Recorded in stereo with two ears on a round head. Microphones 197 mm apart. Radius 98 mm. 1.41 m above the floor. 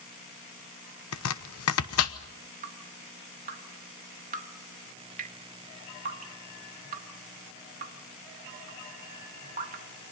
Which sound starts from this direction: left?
Chopping, at 1.1 s.